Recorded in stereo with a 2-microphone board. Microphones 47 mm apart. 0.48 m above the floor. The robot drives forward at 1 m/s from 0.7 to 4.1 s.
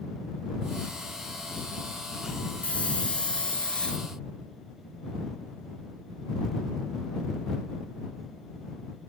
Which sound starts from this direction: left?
A hiss, at 2.6 s.